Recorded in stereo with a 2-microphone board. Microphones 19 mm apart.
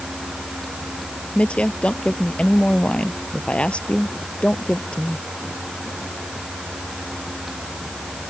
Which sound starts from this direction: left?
A woman speaking, at 1.4 s.